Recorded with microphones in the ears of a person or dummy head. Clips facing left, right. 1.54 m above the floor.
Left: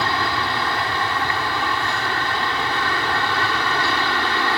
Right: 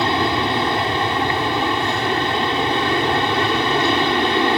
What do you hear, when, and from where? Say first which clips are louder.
0.0 s an aircraft: right 5 dB; 20° right (ahead or behind)